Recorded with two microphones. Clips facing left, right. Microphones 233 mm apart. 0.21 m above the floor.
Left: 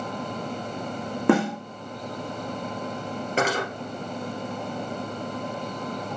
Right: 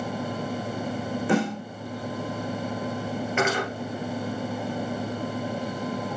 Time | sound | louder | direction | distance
1.3 | a snare drum | left 4 dB | 80° left | 3 m
3.4 | cutlery clinking | left 1 dB | 40° left (ahead or behind) | 2.5 m